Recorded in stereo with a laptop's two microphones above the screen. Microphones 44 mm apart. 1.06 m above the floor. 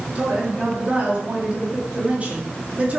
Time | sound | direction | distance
0.1 | a woman speaking | 35° right (ahead or behind) | 2 m